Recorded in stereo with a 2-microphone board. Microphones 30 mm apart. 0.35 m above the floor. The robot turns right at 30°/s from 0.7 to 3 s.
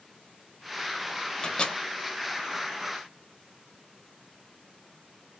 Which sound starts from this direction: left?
A microwave, at 1.4 s.